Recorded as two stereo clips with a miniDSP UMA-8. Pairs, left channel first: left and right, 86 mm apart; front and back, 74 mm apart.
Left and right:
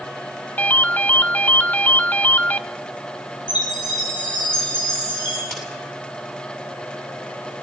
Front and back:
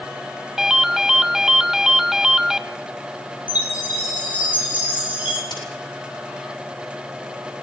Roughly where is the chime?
Behind left.